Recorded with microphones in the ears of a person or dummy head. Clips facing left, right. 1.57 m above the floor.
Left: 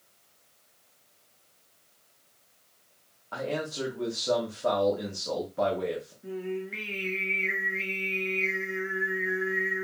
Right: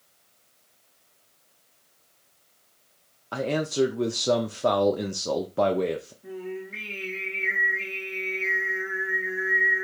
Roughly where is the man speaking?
Right.